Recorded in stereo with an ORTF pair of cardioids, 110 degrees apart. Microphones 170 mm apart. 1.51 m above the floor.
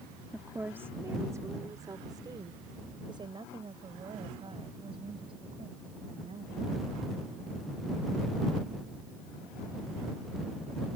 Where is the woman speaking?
5° right; by 7.0 s 35° right.